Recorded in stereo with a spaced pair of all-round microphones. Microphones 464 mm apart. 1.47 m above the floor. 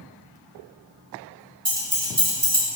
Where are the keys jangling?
15° right (ahead or behind), 0.9 m; by 2.7 s 40° right (ahead or behind), 0.8 m.